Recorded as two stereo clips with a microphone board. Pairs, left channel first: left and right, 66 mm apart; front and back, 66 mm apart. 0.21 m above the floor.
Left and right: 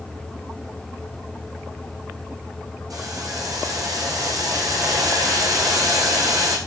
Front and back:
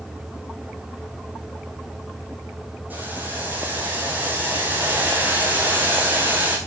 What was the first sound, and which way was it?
Boiling, 115° right.